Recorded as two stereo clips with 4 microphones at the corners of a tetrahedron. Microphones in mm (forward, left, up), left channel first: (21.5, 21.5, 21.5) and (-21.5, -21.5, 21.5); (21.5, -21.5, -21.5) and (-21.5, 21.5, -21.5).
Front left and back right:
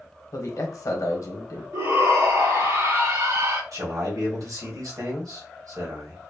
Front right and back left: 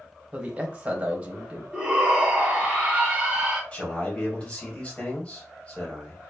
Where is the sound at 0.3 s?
65° left, 1.0 m.